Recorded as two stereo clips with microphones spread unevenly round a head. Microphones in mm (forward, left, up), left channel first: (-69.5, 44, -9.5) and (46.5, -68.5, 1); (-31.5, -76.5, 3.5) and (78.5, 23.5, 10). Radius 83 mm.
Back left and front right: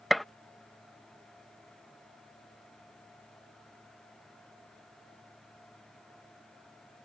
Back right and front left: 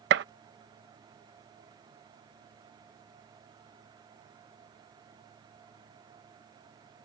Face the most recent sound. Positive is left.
turn(degrees=45)